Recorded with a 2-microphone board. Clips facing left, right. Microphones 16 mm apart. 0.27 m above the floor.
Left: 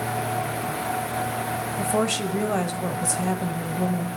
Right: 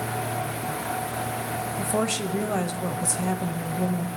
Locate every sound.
1.8 s a woman speaking: 10° left (ahead or behind), 0.9 m